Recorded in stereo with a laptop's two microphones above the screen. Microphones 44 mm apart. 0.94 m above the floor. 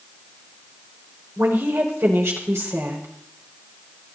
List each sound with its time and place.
1.4 s a woman speaking: 80° right, 4.5 m